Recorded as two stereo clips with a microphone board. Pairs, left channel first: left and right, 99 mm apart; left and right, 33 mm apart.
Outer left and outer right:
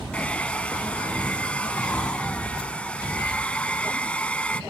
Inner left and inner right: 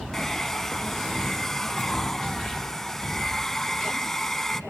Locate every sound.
0.1 s a hair dryer: 10° left (ahead or behind), 0.7 m